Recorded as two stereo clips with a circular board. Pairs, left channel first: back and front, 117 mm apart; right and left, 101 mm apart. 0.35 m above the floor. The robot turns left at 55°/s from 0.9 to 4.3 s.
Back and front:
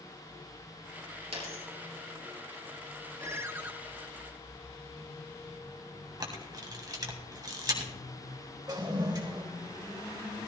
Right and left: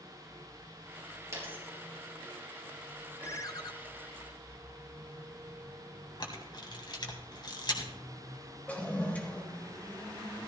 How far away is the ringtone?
About 0.7 m.